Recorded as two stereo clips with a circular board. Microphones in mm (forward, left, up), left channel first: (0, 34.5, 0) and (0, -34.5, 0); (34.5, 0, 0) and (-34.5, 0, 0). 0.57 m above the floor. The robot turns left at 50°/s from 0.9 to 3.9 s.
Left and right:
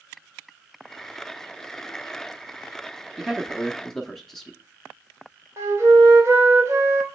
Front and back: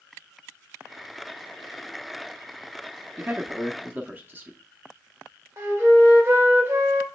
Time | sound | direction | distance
3.2 | a man speaking | 155° right | 0.7 m
5.6 | a flute | 135° right | 2.5 m